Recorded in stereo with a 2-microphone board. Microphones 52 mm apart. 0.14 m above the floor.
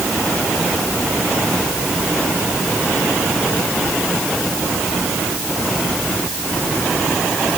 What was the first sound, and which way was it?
Only background noise.